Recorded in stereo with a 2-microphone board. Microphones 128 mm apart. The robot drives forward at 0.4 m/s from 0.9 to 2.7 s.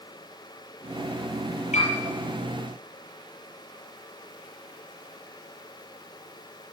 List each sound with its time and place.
1.7 s a piano: 65° left (ahead or behind), 7.5 m